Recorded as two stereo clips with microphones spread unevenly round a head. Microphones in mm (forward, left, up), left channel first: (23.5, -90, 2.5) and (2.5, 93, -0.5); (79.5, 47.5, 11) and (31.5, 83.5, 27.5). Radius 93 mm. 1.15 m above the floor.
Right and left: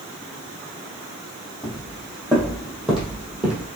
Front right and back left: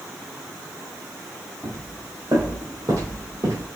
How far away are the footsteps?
About 3.5 m.